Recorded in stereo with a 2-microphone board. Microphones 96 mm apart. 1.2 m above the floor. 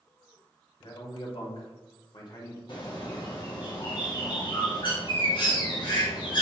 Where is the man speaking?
60° left (ahead or behind), 1.4 m; by 2.6 s 45° left (ahead or behind), 1.4 m.